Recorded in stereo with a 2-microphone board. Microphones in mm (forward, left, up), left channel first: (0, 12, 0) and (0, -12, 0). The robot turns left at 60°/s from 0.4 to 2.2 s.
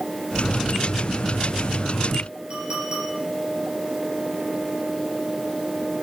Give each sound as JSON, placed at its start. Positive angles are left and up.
{"t": 2.5, "sound": "a clink", "side_deg": -40, "distance_m": 6.5}